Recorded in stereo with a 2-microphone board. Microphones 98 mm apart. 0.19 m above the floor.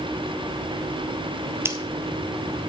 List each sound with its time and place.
1.6 s scissors: 25° right (ahead or behind), 1.1 m